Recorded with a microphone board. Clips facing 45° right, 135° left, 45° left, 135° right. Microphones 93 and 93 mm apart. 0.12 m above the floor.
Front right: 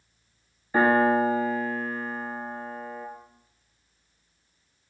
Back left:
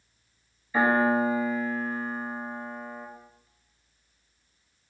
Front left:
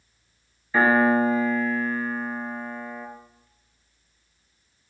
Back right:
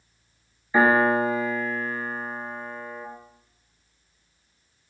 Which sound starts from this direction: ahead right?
A piano, at 0.7 s.